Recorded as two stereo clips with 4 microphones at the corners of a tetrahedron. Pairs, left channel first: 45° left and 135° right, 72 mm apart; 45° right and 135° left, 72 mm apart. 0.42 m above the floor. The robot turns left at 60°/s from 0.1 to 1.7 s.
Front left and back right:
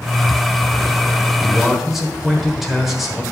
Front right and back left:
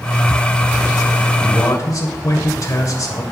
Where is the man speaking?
30° right, 1.3 m; by 3.2 s 45° right, 1.3 m.